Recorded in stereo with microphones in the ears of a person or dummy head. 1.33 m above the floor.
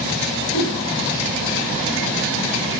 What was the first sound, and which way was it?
A whoosh, 60° left (ahead or behind).